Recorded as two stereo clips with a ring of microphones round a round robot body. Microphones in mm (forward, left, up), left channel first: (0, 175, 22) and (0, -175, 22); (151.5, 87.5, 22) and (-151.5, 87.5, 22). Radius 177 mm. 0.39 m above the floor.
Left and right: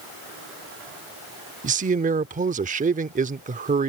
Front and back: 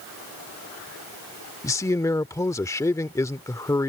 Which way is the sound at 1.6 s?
65° right.